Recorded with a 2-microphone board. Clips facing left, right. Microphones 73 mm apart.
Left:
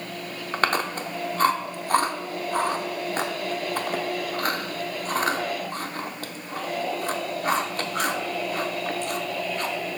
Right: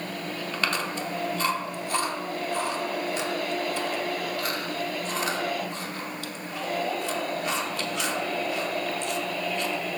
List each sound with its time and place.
0.5 s chewing: 45° left (ahead or behind), 0.7 m